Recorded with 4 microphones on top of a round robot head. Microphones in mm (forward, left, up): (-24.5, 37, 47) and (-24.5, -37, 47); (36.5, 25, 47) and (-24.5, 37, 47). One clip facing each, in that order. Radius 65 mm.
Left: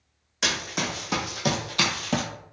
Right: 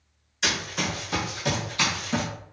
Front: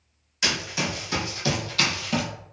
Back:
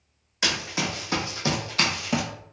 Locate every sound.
0.4 s running footsteps: 110° left, 1.5 m; by 2.2 s 105° left, 0.6 m